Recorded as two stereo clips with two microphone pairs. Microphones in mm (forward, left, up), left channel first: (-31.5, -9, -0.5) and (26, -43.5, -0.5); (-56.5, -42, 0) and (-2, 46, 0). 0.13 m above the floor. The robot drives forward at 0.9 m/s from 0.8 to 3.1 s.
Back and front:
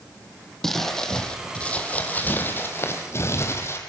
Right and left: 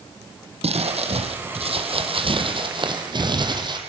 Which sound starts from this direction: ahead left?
Crumpling, at 0.6 s.